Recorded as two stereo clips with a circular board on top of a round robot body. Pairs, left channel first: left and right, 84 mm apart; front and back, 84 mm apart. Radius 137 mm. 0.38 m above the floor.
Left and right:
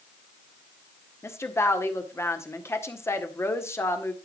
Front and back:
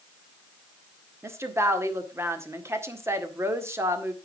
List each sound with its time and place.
1.2 s a woman speaking: 135° left, 1.8 m